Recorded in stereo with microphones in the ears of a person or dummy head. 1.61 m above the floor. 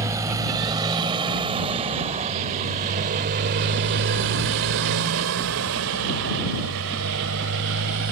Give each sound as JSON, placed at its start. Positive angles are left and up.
{"t": 0.0, "sound": "a motorcycle", "side_deg": -20}